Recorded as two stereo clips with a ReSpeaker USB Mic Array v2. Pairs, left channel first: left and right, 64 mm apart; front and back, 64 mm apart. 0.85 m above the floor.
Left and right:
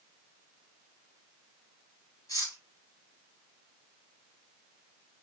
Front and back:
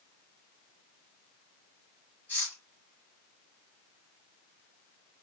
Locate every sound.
2.3 s cutlery clinking: 65° left, 3.5 m